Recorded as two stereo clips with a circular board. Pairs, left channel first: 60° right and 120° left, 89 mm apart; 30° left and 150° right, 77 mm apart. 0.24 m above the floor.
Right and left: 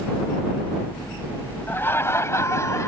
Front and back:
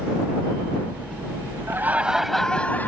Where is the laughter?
115° right; by 2.9 s 25° right.